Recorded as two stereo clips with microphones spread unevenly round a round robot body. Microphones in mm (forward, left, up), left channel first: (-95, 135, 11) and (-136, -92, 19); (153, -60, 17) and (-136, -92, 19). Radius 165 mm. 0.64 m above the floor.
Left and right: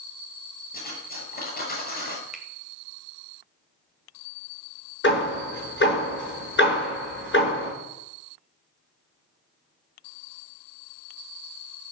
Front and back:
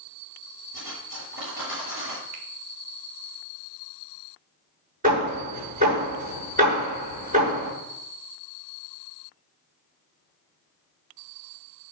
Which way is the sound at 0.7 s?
130° left.